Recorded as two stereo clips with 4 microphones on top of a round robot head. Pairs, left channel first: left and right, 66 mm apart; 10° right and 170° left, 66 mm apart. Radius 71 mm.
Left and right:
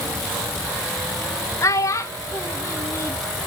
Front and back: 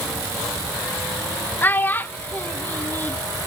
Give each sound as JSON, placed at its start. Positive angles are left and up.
{"t": 1.6, "sound": "a child speaking", "azimuth_deg": 50, "distance_m": 0.7}